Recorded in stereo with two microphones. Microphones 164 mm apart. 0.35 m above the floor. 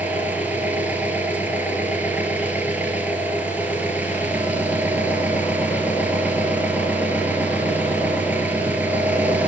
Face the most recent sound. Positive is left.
turn(degrees=-10)  # may be behind; listen again after turning